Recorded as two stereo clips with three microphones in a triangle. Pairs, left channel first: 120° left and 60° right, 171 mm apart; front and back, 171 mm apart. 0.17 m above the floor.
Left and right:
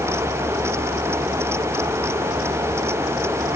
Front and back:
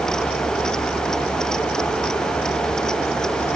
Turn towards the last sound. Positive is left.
No sound to turn to.